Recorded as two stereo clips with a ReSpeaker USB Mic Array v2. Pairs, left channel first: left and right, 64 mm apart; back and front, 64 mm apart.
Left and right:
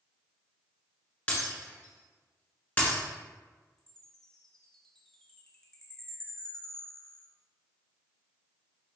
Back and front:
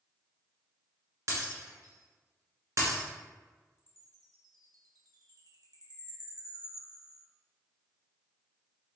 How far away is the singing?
No singing in this recording.